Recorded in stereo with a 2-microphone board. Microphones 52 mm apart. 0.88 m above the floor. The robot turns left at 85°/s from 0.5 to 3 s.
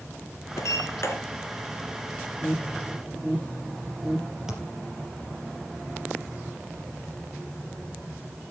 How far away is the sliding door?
About 3 m.